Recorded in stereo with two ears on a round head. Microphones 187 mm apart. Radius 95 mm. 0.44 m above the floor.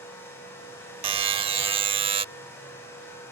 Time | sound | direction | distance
1.0 | a buzzer | 25° right (ahead or behind) | ?